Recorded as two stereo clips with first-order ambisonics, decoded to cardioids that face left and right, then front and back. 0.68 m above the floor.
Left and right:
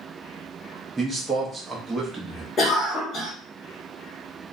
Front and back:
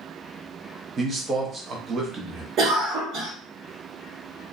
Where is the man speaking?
160° right, 0.5 m.